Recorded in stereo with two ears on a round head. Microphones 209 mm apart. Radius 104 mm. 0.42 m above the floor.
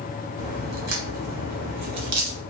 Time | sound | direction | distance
0.4 | a crack | 75° right (ahead or behind) | 0.9 m